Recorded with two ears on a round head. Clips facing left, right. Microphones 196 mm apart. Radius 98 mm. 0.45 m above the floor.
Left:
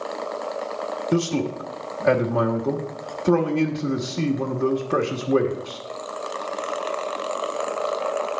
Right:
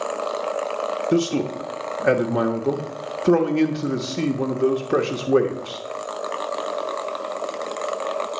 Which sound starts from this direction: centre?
A man speaking, at 1.1 s.